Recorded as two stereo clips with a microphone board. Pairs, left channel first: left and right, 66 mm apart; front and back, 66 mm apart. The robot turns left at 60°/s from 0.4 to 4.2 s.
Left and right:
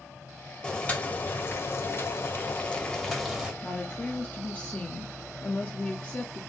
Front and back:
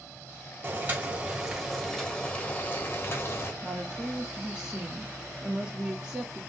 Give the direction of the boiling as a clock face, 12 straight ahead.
7 o'clock.